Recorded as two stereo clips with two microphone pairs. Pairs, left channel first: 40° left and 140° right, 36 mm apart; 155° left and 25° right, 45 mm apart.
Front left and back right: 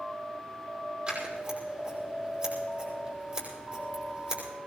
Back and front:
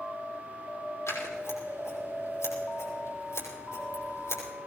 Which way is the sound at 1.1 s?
160° left.